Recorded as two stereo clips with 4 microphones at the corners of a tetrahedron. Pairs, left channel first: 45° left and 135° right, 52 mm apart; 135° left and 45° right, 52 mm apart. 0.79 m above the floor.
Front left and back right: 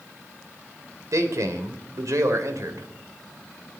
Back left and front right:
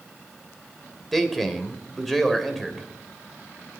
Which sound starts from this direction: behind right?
A man speaking, at 1.1 s.